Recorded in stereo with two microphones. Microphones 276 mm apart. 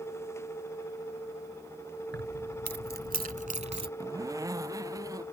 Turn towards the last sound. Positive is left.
turn(degrees=-10)  # may be behind; listen again after turning